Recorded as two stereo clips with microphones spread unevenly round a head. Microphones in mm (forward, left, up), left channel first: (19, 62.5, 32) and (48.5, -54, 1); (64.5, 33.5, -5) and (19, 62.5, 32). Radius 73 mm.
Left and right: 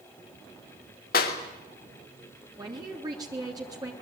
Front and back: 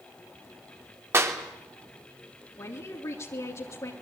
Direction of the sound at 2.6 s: 20° right.